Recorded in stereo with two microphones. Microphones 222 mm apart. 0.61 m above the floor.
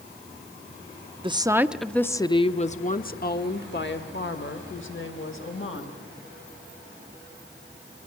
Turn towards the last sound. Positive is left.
turn(degrees=70)  # may be behind; listen again after turning